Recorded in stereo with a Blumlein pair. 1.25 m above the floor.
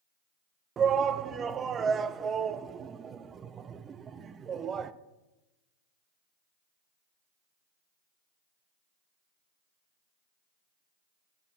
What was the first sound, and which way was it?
A shout, 25° right.